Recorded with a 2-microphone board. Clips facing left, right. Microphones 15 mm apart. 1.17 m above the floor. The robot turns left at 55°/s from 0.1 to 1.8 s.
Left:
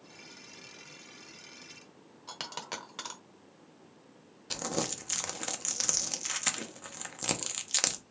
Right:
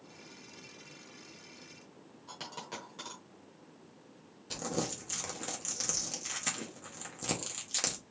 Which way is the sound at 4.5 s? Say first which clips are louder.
Left 2 dB; 25° left (ahead or behind).